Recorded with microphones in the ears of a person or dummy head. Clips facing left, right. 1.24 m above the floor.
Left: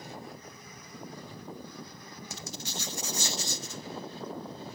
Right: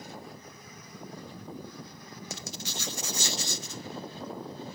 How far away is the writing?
About 1.0 m.